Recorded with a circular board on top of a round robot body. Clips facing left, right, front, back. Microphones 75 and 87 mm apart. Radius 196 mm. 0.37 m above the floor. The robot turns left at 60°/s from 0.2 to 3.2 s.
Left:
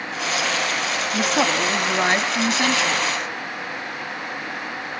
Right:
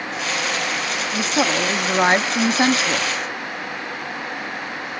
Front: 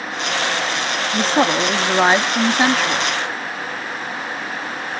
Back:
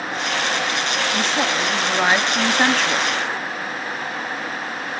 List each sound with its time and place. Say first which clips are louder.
1.1 s a woman speaking: even, front 8 dB; 15° left, 1.0 m; by 3.1 s 100° right, 1.0 m